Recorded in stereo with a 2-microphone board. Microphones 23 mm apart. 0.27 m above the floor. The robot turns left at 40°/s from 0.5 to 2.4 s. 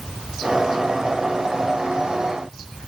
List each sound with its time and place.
Only background noise.